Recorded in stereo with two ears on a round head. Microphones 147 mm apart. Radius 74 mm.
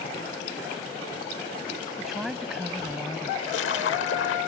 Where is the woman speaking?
5° right (ahead or behind).